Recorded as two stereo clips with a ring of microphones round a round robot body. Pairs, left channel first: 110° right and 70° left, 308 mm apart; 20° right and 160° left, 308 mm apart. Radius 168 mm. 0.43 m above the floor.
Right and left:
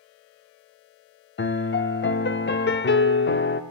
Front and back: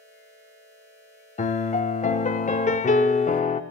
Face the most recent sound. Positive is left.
turn(degrees=-80)